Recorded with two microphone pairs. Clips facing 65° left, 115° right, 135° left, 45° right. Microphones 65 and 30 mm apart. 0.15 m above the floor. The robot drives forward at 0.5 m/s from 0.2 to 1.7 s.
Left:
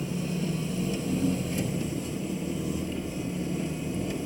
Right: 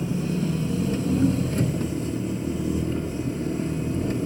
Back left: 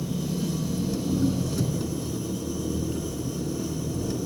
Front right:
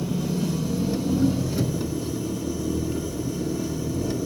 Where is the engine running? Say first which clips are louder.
Right 5 dB, front right 3 dB; 85° right, 1.6 m; by 4.3 s 120° right, 1.7 m.